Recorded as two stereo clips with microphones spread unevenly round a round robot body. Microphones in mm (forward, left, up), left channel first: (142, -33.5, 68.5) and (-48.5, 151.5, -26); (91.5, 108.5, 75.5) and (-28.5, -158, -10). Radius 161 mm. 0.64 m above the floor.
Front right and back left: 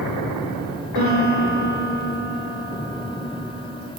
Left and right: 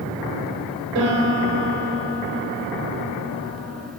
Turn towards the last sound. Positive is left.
turn(degrees=-155)